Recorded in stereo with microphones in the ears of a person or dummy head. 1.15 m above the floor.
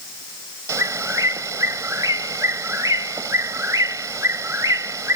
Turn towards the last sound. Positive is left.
turn(degrees=-10)  # may be behind; listen again after turning